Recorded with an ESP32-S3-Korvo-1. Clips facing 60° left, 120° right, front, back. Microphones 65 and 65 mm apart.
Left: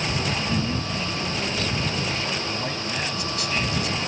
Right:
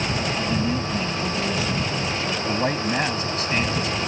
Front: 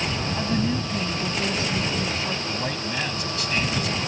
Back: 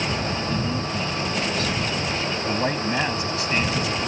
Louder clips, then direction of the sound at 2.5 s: Right 6 dB, back 5 dB; 135° right.